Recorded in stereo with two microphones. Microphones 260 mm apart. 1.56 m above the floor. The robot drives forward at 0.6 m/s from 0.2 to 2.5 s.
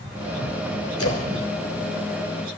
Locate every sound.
1.0 s a splash: 65° left (ahead or behind), 3.5 m; by 1.3 s 60° left (ahead or behind), 3.5 m